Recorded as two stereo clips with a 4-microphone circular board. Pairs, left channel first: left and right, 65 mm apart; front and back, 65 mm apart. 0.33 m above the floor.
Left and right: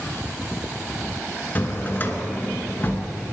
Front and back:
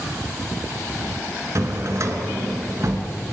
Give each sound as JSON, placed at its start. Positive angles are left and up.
{"t": 1.6, "sound": "a drawer", "azimuth_deg": 145, "distance_m": 1.2}